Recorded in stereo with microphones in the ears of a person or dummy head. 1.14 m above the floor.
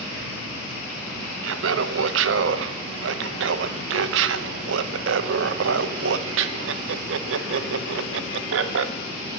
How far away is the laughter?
About 0.6 m.